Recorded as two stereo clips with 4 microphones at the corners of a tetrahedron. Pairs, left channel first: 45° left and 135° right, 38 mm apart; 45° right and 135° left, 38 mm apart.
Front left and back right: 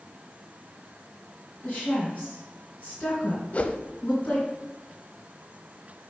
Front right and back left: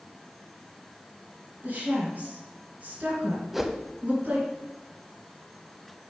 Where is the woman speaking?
90° left, 2.5 m.